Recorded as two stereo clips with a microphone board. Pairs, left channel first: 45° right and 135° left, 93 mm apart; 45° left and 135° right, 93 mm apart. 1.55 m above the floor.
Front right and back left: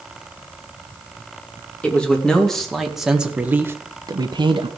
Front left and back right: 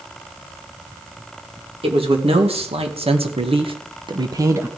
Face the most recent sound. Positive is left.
turn(degrees=160)